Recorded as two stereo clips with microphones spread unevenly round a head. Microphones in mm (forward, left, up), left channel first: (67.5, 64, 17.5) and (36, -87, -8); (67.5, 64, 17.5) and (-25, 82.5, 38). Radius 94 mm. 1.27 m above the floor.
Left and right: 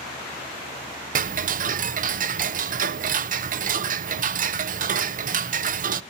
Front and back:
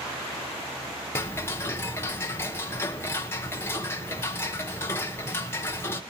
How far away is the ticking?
About 0.7 m.